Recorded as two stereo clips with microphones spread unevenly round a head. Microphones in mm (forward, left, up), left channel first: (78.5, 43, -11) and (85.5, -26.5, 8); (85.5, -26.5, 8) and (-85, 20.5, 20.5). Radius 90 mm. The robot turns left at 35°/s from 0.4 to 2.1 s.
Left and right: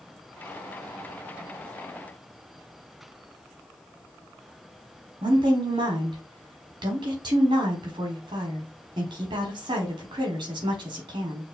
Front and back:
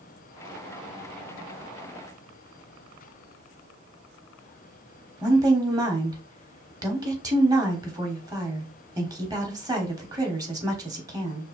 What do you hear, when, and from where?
5.2 s a woman speaking: 125° right, 1.2 m